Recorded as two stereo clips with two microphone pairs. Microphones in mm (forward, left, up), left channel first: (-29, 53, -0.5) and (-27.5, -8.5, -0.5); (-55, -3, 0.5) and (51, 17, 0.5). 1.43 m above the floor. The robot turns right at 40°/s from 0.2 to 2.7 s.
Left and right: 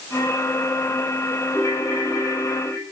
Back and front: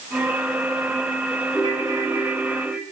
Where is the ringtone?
50° left, 6.5 m; by 2.8 s 95° left, 6.5 m.